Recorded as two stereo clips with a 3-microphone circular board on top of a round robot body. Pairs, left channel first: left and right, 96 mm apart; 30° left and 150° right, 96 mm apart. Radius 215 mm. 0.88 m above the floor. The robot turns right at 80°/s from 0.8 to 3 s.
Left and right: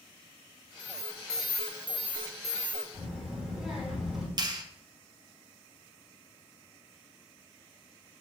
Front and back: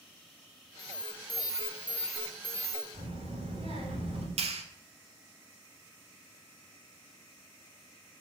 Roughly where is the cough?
I don't hear a cough.